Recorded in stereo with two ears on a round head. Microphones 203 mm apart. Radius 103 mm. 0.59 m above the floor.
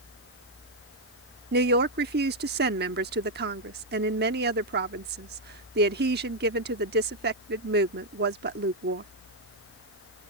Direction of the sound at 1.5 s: 45° right (ahead or behind).